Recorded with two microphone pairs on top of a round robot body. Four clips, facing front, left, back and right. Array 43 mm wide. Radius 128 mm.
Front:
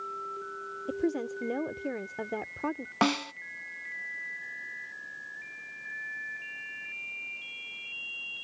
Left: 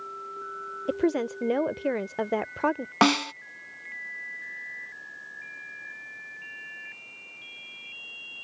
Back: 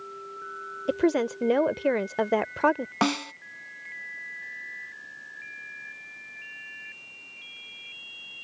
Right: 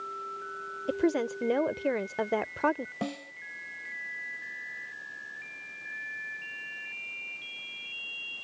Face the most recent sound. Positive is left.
turn(degrees=90)